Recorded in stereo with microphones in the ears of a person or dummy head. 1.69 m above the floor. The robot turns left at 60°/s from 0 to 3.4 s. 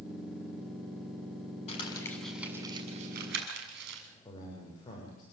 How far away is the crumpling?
About 7 m.